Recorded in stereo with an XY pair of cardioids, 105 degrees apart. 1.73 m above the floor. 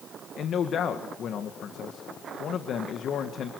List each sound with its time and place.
0.4 s a man speaking: 60° left, 2 m